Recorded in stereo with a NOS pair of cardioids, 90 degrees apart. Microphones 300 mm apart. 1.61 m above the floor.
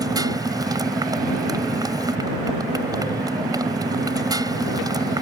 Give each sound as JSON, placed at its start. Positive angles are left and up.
{"t": 0.0, "sound": "a motorcycle", "azimuth_deg": -15}